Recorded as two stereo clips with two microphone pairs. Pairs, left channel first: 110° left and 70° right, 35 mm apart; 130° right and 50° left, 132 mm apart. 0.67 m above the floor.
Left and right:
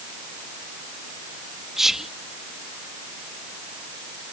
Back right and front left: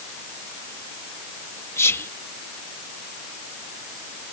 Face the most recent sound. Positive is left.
turn(degrees=-120)